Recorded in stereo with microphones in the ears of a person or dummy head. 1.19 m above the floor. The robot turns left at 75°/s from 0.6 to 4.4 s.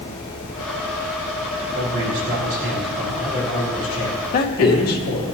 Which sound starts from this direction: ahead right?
A man speaking, at 1.7 s.